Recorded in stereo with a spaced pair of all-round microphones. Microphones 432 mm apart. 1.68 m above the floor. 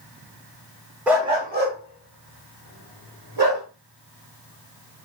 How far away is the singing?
No singing in this recording.